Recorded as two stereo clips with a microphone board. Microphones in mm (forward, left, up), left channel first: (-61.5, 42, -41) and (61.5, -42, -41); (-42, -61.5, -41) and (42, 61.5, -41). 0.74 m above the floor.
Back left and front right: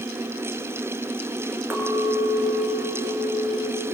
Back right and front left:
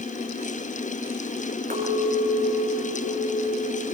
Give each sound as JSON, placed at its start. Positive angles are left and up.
{"t": 1.7, "sound": "a clink", "azimuth_deg": 40, "distance_m": 7.0}